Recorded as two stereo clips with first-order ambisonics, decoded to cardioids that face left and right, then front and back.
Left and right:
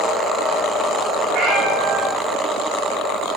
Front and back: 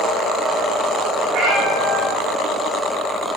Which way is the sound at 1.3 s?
140° right.